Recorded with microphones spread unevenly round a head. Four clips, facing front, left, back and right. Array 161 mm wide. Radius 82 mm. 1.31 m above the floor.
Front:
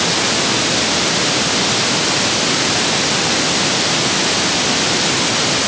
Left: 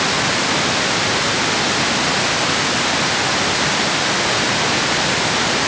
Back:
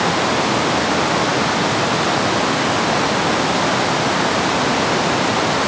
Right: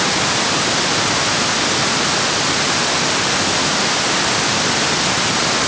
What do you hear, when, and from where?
Only background noise.